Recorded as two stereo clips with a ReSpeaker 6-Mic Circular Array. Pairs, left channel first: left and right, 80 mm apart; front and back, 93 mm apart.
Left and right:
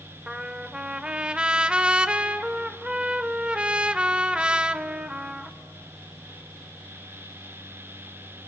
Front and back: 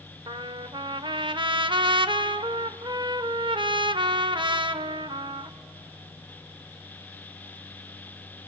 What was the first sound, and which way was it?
A trumpet, 165° right.